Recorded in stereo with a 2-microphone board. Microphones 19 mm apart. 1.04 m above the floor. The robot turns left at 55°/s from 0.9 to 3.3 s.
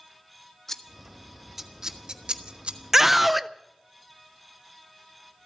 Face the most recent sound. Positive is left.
turn(degrees=0)  # may be behind; listen again after turning